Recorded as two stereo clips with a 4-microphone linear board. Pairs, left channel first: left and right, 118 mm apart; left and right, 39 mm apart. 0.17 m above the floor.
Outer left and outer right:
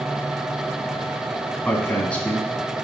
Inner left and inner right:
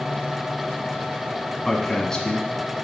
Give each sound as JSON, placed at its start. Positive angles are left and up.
{"t": 1.6, "sound": "a woman speaking", "side_deg": 10, "distance_m": 1.3}